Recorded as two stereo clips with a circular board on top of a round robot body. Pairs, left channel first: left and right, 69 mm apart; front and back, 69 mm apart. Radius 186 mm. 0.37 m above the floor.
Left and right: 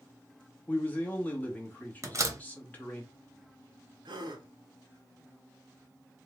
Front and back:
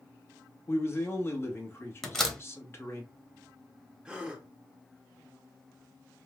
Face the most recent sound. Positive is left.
turn(degrees=-100)